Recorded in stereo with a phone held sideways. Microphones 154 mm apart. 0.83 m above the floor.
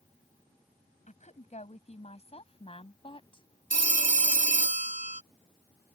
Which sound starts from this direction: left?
A woman speaking, at 1.1 s.